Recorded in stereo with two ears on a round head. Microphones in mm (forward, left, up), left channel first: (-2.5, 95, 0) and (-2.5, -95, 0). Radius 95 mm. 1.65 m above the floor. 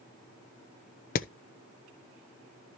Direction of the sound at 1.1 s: 40° left (ahead or behind).